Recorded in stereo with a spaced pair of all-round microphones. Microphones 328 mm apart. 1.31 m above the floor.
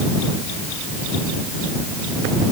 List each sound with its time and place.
Only background noise.